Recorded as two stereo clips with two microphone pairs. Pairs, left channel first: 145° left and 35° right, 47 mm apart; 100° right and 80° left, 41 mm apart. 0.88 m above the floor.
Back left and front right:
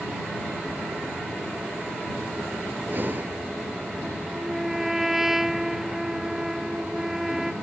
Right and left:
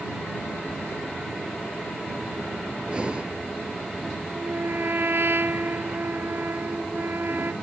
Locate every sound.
2.9 s breathing: 10° left
4.3 s a trumpet: 45° left